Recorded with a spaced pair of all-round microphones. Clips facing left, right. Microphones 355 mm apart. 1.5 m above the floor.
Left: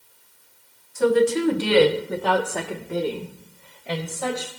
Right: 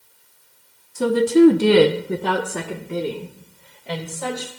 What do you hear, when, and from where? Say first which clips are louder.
0.9 s a woman speaking: right 4 dB; 45° right (ahead or behind), 1.2 m; by 4.5 s 5° left (ahead or behind), 3 m